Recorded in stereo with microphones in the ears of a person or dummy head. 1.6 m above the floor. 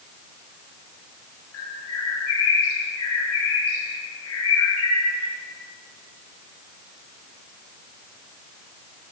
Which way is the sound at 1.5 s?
85° left.